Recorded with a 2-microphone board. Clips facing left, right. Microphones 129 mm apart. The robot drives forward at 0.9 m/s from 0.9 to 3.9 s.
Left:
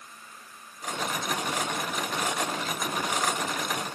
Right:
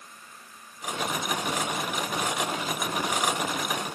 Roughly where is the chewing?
No chewing in this recording.